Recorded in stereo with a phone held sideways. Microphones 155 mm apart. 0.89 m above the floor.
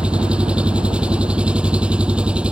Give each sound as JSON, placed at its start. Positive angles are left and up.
{"t": 0.0, "sound": "an engine running", "side_deg": -5}